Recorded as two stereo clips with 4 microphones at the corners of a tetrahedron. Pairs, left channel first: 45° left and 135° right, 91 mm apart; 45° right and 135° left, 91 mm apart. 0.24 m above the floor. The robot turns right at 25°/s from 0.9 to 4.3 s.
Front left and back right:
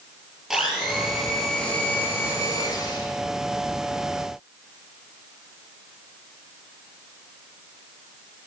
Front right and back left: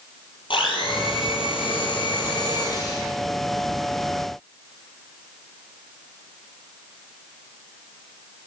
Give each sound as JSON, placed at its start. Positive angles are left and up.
{"t": 0.5, "sound": "a blender", "azimuth_deg": -50, "distance_m": 6.0}